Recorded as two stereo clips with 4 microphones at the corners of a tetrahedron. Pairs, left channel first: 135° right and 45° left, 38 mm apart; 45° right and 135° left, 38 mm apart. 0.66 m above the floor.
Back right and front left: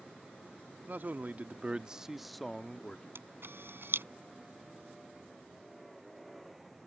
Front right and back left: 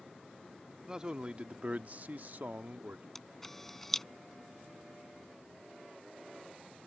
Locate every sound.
0.9 s a man speaking: 65° left; by 3.0 s 165° left
3.1 s a camera shutter: 35° left